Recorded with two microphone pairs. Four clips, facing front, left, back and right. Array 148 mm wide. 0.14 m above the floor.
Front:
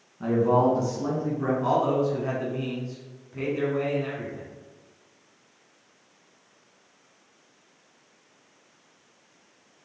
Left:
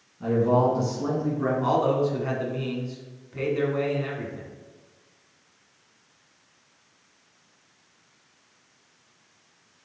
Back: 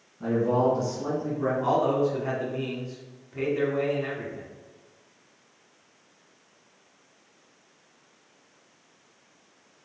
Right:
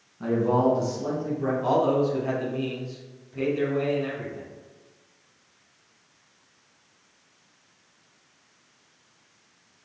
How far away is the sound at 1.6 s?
About 1.4 m.